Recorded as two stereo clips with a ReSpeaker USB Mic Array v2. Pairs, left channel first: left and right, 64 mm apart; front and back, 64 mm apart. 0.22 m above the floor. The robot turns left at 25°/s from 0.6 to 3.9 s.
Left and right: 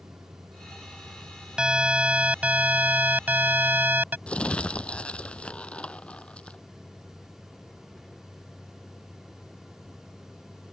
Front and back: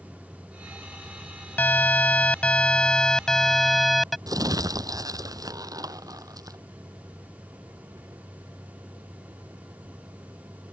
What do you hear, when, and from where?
0.0 s a vehicle: 110° right; by 10.7 s 170° left
1.6 s an alarm: 30° right; by 4.2 s 85° right
4.3 s crumpling: 160° left